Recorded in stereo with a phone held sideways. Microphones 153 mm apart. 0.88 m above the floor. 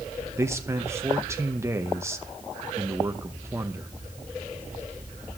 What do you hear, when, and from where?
0.4 s a man speaking: 15° right (ahead or behind), 0.9 m